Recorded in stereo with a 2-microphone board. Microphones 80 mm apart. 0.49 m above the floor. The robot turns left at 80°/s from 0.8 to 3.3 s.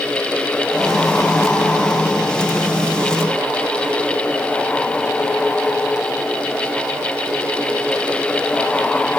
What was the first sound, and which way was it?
Only background noise.